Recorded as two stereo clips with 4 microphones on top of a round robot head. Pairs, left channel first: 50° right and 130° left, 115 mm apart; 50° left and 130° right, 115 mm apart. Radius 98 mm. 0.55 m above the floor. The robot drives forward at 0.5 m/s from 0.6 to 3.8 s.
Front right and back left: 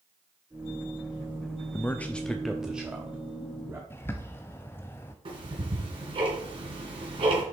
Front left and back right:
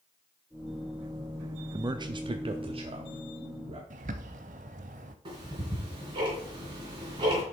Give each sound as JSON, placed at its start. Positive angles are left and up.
{"t": 1.7, "sound": "a man speaking", "azimuth_deg": -100, "distance_m": 0.7}
{"t": 3.9, "sound": "a bird", "azimuth_deg": -120, "distance_m": 0.5}
{"t": 5.2, "sound": "ticking", "azimuth_deg": 180, "distance_m": 3.5}